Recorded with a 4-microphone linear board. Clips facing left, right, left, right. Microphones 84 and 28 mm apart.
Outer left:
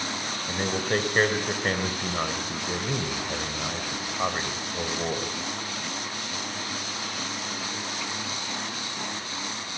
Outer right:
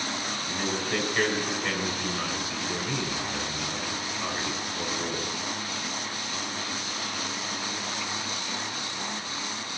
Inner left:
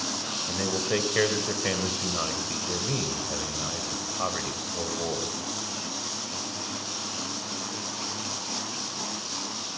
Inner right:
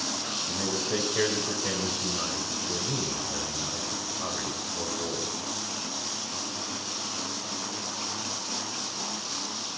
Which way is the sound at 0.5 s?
45° left (ahead or behind).